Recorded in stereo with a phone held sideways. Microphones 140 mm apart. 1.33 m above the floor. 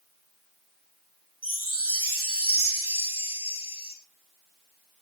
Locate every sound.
1.4 s a chime: 40° left (ahead or behind), 4.5 m